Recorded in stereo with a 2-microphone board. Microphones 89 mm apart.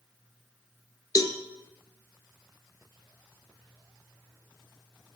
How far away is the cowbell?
About 1.1 m.